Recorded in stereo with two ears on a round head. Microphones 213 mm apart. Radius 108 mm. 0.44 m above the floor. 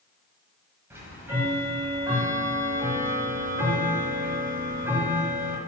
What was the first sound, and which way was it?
Ticking, 10° right (ahead or behind).